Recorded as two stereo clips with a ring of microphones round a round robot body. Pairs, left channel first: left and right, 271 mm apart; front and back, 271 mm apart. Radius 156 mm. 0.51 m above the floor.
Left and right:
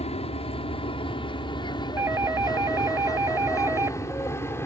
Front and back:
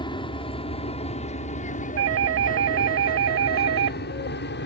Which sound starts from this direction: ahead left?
An aircraft, at 0.0 s.